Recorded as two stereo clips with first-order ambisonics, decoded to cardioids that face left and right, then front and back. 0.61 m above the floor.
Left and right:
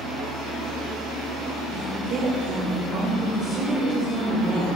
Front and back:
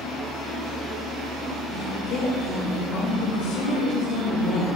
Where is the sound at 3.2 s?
5° right, 1.8 m.